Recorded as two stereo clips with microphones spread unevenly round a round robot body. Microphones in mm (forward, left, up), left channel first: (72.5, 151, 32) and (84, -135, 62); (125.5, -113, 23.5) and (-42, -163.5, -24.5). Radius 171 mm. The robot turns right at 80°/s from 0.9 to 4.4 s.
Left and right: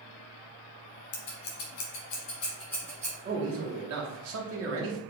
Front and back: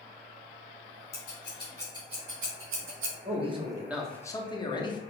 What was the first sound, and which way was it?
Scissors, 50° left.